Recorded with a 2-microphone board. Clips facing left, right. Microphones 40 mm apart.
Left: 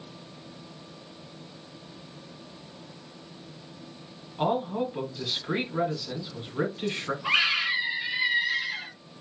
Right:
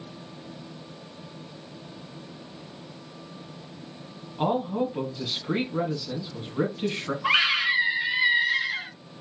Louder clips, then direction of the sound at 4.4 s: Right 1 dB; centre (ahead or behind).